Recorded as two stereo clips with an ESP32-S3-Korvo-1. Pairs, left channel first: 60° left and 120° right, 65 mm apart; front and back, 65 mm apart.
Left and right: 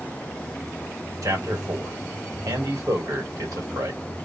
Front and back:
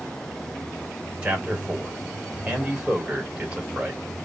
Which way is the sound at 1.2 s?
110° right.